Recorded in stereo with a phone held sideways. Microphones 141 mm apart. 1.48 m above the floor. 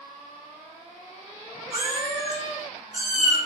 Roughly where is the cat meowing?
Right.